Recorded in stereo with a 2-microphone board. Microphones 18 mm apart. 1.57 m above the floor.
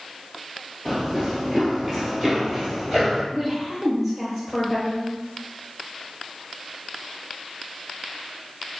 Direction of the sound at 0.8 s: 15° right (ahead or behind).